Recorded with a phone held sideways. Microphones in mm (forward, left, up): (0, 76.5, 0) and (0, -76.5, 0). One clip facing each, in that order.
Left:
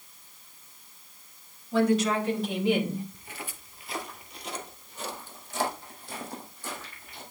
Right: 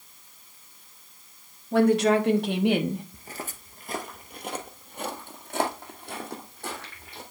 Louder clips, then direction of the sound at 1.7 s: Right 4 dB; 60° right (ahead or behind).